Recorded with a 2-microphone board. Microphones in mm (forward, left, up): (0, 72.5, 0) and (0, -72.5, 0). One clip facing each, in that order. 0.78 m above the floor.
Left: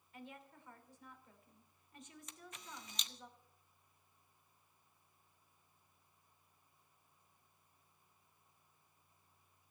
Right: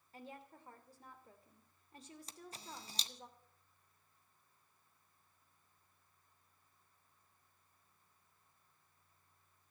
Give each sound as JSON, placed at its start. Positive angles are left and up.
{"t": 0.1, "sound": "a woman speaking", "side_deg": -35, "distance_m": 2.5}
{"t": 2.3, "sound": "a camera shutter", "side_deg": -35, "distance_m": 0.8}